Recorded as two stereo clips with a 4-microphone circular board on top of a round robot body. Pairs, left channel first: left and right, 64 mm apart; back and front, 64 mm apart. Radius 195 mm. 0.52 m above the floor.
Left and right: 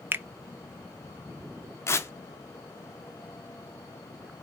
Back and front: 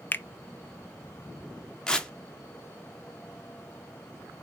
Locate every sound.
0.1 s a finger snap: 135° right, 0.6 m
1.9 s tearing paper: 105° left, 1.0 m